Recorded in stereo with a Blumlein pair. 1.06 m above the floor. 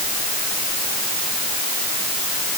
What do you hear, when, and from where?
Only background noise.